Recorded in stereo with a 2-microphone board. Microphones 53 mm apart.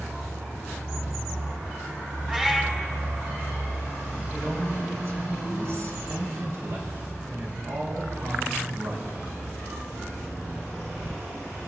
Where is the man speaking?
60° right (ahead or behind), 4 m.